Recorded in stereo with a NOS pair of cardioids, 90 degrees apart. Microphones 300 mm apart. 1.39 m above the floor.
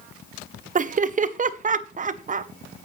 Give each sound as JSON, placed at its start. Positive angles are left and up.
{"t": 0.8, "sound": "laughter", "azimuth_deg": -25, "distance_m": 0.8}